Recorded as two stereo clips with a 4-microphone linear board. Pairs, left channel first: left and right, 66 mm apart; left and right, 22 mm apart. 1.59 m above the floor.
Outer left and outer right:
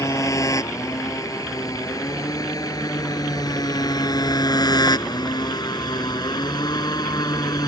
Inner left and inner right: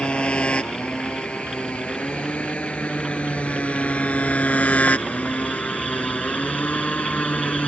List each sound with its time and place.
0.0 s a motorcycle: 50° left (ahead or behind); by 7.7 s 75° left (ahead or behind)